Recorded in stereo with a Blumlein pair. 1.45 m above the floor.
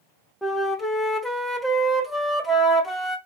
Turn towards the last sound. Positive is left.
turn(degrees=0)